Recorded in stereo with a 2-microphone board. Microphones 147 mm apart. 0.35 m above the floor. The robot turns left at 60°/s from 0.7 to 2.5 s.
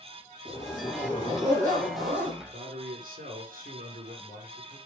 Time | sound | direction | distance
0.5 | a zipper | 35° left | 5.5 m
2.4 | a man speaking | 75° right (ahead or behind) | 4.5 m